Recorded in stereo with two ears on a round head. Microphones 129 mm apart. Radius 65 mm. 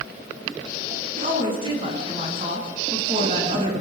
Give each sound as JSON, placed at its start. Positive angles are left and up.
{"t": 1.2, "sound": "a woman speaking", "side_deg": -35, "distance_m": 8.0}